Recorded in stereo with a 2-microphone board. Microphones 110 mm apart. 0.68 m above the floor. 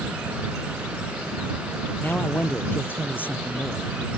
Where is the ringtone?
I don't hear a ringtone.